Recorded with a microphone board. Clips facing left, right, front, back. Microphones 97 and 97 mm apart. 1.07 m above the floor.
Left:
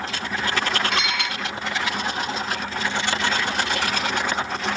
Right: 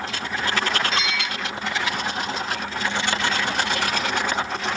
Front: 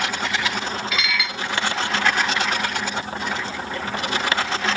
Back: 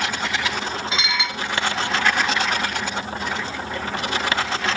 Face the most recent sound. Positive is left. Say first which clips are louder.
# left 1 dB, even
turn(degrees=115)